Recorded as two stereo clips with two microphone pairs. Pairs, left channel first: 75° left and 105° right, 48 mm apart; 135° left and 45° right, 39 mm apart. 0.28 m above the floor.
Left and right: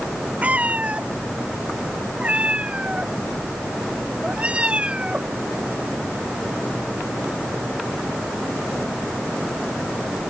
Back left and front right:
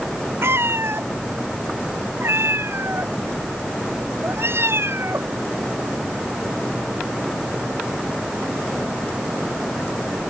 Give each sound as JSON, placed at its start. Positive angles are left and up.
{"t": 0.4, "sound": "a cat meowing", "azimuth_deg": -45}